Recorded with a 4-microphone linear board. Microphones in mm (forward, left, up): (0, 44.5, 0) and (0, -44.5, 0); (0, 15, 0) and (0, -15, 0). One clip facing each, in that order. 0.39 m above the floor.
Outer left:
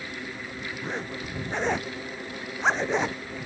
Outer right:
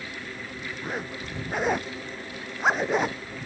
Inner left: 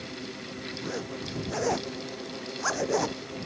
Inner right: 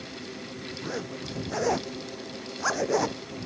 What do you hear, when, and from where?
0.8 s a zipper: 5° right (ahead or behind)